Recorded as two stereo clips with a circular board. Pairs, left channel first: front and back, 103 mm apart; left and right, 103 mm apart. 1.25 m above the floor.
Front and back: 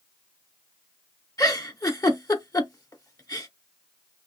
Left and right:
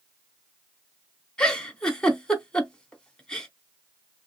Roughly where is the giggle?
Ahead.